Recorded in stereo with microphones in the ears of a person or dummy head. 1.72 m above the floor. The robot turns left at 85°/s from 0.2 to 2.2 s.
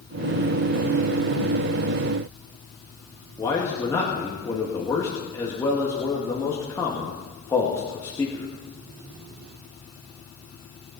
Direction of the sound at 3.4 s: 25° left (ahead or behind).